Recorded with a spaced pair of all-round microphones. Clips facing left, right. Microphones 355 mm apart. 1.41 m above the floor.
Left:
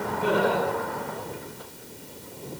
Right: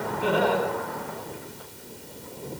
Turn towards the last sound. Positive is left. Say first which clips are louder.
# even
turn(degrees=-85)